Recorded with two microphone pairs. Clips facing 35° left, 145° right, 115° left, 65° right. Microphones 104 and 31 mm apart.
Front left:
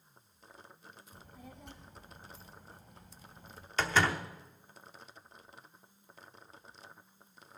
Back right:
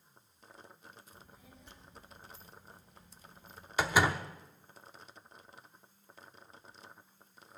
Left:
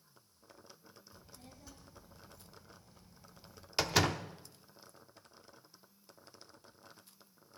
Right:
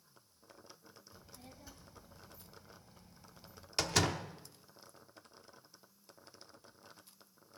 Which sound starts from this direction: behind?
A door slam, at 3.8 s.